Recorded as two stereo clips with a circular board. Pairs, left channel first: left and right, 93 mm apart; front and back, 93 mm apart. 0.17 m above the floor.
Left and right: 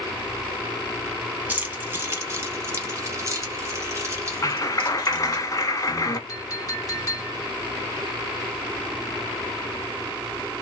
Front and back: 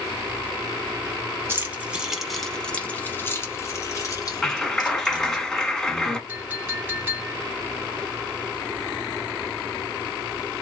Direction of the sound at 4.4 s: 80° left.